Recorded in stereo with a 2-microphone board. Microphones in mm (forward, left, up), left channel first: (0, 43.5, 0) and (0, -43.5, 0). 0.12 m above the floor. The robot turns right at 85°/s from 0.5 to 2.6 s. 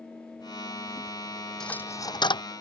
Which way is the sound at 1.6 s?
5° left (ahead or behind).